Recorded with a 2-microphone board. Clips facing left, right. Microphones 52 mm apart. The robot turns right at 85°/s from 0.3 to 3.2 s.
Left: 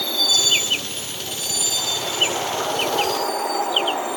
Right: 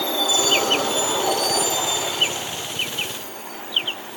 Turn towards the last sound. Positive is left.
turn(degrees=80)